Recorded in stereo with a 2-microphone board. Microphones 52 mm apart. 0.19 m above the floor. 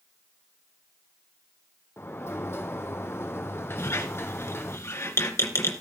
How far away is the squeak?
About 2 m.